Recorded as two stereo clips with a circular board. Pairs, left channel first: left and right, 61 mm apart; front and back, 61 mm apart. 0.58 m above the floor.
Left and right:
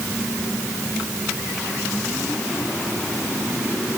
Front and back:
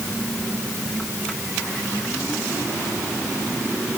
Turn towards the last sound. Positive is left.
No sound to turn to.